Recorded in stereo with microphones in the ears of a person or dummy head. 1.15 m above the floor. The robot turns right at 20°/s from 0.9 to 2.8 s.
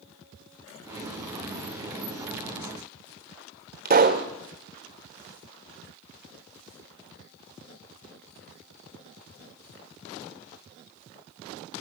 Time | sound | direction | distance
3.9 | a pop | 35° right (ahead or behind) | 1.1 m